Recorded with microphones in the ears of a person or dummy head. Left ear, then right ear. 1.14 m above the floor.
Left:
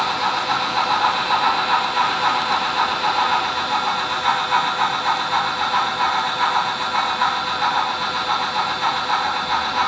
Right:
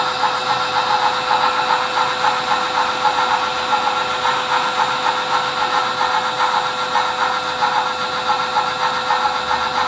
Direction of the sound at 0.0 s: 75° right (ahead or behind).